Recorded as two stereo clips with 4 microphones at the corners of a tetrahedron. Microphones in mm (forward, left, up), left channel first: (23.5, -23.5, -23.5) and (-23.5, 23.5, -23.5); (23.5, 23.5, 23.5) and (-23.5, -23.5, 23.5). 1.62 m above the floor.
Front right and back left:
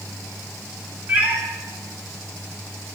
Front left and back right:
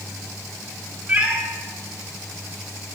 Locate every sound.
1.1 s a cat meowing: 165° left, 1.3 m